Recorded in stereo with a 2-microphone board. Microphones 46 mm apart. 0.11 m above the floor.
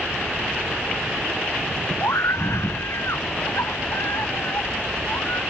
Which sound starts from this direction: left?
A scream, at 2.0 s.